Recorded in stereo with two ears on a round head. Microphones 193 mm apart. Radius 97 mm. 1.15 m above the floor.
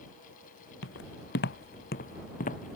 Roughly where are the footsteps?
Left.